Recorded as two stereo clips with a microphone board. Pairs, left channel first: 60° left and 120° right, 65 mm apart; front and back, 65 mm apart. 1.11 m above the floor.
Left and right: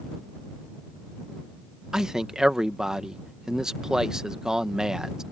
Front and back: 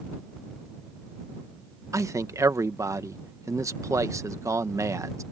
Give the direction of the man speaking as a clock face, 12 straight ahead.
7 o'clock.